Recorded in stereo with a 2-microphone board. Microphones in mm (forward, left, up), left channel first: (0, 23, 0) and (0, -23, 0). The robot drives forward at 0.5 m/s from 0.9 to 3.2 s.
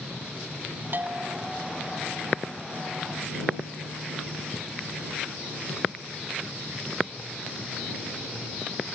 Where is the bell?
45° right (ahead or behind).